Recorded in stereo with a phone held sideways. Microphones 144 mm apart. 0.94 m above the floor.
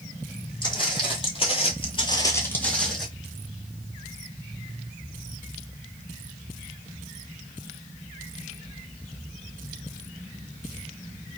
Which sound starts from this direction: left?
Footsteps, at 0.6 s.